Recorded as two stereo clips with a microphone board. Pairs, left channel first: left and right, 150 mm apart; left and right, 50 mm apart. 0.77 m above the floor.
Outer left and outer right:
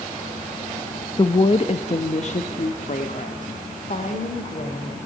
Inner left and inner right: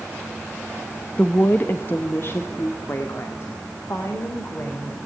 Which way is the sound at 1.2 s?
30° left (ahead or behind).